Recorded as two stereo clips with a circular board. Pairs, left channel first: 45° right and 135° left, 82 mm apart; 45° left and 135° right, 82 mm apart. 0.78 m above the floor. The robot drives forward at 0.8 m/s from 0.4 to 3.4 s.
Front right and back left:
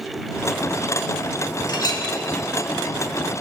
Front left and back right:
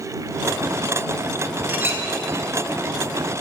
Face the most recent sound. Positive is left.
turn(degrees=-120)